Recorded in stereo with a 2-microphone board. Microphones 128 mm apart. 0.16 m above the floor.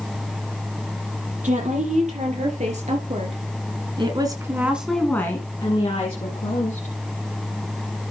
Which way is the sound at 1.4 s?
75° right (ahead or behind).